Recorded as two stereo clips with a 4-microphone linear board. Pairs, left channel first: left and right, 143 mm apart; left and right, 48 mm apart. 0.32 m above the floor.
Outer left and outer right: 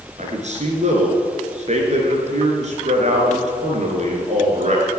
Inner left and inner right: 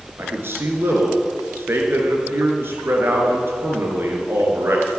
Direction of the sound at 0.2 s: 55° right (ahead or behind).